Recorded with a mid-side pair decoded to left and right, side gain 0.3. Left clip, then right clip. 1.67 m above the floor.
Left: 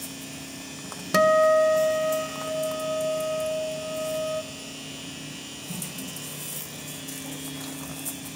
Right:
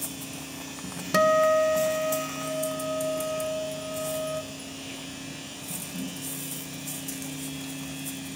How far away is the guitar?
About 1.5 m.